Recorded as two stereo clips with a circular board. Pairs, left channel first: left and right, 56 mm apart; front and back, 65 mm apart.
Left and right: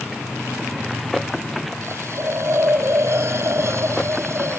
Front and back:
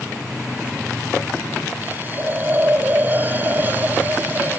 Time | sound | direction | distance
1.8 | a hiss | 125° right | ?